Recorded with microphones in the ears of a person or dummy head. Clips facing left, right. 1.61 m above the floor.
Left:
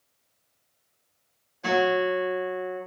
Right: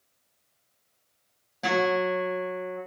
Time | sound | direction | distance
1.6 | a guitar | 75° right (ahead or behind) | 3.5 m